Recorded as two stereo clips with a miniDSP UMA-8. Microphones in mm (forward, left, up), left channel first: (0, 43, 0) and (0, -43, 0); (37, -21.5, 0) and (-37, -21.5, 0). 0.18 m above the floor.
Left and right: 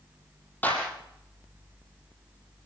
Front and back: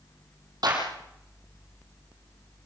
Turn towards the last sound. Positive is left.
turn(degrees=160)